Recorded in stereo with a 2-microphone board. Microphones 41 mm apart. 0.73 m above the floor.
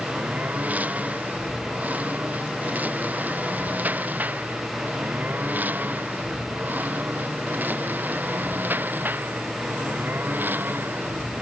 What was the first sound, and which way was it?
A lawn mower, 45° right (ahead or behind).